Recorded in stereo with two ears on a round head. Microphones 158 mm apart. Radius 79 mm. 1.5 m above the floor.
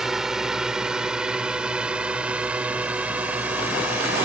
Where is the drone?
5° right (ahead or behind); by 4.2 s 10° right (ahead or behind).